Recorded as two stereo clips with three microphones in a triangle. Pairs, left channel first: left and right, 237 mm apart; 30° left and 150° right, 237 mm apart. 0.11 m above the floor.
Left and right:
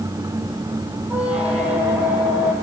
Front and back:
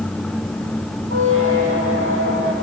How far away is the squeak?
About 3 m.